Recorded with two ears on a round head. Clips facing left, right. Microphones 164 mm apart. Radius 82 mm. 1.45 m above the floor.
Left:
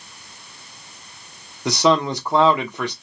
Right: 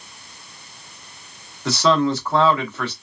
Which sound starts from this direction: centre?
A man speaking, at 1.6 s.